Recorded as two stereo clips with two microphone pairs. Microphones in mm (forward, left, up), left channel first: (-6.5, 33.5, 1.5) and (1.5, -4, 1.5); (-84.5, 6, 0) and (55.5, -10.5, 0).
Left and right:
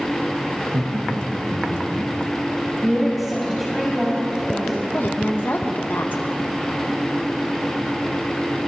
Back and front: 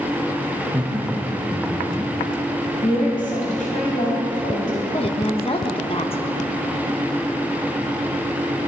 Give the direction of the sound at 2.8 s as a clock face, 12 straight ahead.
6 o'clock.